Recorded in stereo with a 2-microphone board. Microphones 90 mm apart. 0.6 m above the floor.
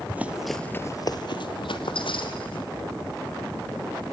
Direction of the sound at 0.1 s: 20° right (ahead or behind).